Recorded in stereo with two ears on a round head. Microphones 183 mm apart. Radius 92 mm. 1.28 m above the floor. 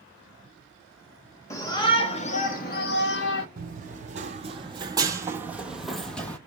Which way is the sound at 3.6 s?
45° right (ahead or behind).